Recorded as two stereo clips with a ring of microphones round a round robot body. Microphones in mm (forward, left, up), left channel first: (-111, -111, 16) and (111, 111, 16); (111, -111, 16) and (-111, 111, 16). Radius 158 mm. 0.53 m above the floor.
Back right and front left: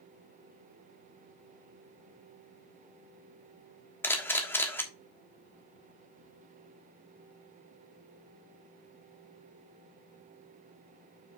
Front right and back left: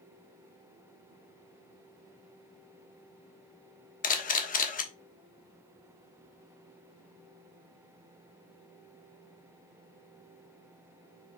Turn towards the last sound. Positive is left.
turn(degrees=-60)